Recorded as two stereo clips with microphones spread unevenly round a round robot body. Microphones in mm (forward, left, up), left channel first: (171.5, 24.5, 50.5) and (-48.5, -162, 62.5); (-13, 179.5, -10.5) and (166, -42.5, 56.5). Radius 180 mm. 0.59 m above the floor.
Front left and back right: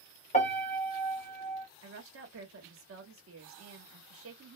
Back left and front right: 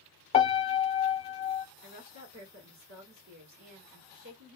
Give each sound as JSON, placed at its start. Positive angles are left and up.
{"t": 0.3, "sound": "a piano", "azimuth_deg": 90, "distance_m": 1.0}
{"t": 1.8, "sound": "a woman speaking", "azimuth_deg": -105, "distance_m": 1.2}